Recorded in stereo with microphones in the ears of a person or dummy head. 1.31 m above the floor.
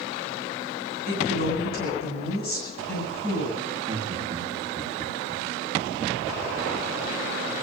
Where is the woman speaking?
55° left (ahead or behind), 9 m.